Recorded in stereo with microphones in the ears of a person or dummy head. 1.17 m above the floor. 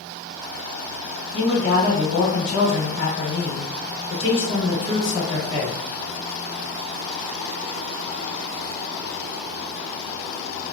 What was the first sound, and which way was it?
A man speaking, 70° left (ahead or behind).